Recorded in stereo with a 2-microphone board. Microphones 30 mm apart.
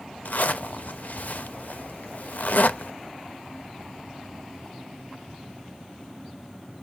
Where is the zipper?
65° left (ahead or behind), 0.5 m.